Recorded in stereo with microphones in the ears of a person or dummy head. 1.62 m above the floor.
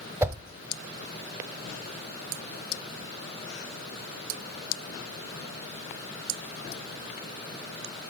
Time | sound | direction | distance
0.2 | a whoosh | 15° right (ahead or behind) | 0.6 m